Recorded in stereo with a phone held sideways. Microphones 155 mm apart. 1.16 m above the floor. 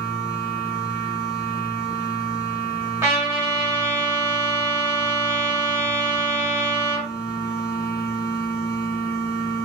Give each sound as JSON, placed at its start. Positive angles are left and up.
{"t": 0.0, "sound": "a machine running", "side_deg": 65, "distance_m": 1.1}
{"t": 3.0, "sound": "a trumpet", "side_deg": -15, "distance_m": 1.1}